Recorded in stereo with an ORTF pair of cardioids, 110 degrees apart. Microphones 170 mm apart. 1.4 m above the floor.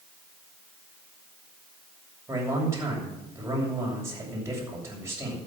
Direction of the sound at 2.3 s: 15° right.